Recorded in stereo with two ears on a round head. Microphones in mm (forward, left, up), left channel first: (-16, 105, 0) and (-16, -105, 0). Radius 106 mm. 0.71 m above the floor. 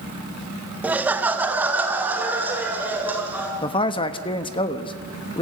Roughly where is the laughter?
Centre.